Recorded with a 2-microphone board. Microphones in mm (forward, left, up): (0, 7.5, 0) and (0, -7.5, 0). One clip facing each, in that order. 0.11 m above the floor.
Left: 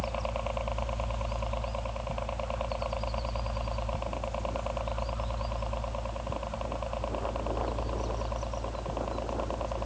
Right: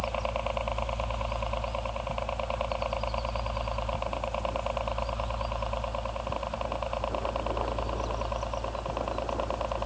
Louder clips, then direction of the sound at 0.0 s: Right 3 dB; 10° right (ahead or behind).